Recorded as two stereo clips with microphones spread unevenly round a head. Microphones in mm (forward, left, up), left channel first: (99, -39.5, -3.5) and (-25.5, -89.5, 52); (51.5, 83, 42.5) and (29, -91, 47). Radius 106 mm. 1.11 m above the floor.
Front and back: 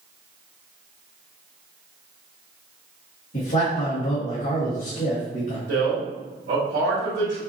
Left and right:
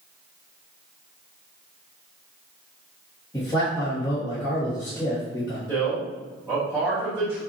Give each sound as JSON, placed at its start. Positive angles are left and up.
{"t": 3.3, "sound": "a man speaking", "azimuth_deg": 10, "distance_m": 1.8}
{"t": 5.7, "sound": "a man speaking", "azimuth_deg": -170, "distance_m": 2.0}